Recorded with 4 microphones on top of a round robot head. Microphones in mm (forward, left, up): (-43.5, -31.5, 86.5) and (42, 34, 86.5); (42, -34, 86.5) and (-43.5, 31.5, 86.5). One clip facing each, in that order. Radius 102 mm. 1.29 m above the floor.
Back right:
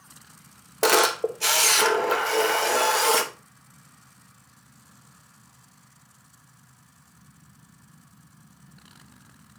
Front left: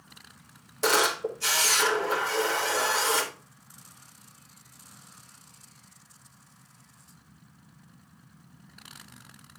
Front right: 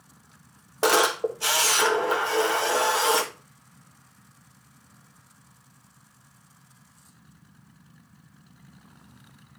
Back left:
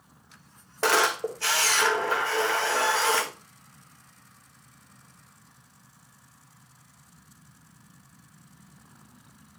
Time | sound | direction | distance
0.8 | a camera shutter | 110° right | 0.9 m